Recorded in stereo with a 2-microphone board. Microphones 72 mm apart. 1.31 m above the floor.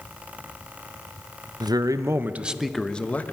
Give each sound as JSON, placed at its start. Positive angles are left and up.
{"t": 1.6, "sound": "a man speaking", "side_deg": -65, "distance_m": 0.9}